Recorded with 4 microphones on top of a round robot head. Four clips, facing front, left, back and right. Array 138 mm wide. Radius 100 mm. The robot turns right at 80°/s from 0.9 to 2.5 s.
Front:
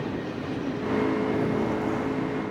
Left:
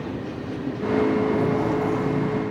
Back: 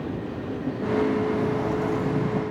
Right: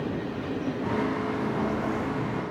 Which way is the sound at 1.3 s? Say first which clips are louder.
Left 6 dB, back 1 dB; 55° left.